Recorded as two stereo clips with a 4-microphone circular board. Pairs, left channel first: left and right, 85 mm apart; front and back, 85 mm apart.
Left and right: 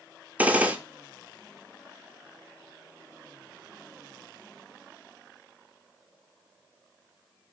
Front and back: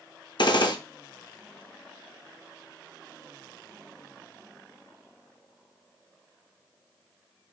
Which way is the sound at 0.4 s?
15° right.